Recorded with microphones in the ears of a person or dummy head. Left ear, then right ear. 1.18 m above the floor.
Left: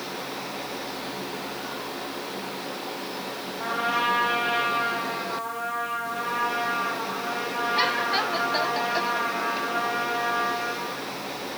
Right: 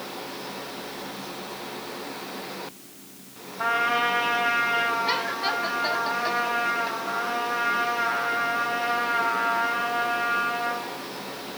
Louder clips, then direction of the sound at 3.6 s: Right 3 dB; 65° right (ahead or behind).